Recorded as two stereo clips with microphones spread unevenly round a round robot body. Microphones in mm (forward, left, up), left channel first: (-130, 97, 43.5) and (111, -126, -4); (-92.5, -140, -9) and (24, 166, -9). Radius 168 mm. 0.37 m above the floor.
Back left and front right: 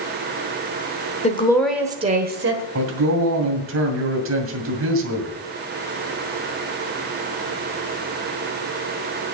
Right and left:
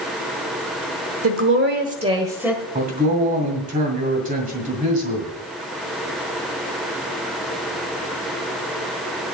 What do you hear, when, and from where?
1.2 s a woman speaking: 70° left, 1.3 m; by 2.6 s 20° right, 1.6 m
2.8 s a man speaking: straight ahead, 2 m